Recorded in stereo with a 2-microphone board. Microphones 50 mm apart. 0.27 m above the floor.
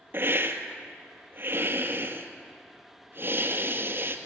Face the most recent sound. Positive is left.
turn(degrees=-45)  # may be behind; listen again after turning